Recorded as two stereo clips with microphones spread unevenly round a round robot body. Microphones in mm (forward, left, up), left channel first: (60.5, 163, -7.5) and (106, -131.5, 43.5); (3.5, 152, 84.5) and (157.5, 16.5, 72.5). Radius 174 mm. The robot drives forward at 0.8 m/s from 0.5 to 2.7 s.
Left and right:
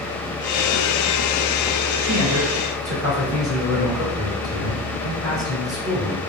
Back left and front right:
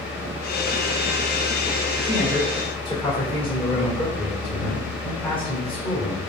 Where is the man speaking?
115° right, 1.3 m; by 6.2 s 135° right, 1.6 m.